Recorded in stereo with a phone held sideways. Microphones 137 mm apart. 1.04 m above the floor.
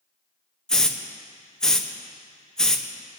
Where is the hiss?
5° left (ahead or behind), 0.8 m.